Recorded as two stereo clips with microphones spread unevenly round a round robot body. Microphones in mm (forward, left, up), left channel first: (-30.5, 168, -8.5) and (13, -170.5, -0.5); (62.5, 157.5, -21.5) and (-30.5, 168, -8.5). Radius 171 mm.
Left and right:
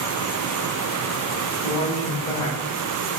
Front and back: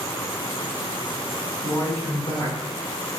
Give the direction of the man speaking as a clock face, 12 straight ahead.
11 o'clock.